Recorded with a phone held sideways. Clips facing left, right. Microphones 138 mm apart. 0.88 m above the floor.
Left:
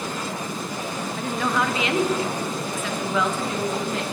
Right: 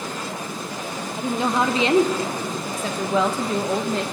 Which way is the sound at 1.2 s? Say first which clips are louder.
Right 3 dB; 15° right (ahead or behind).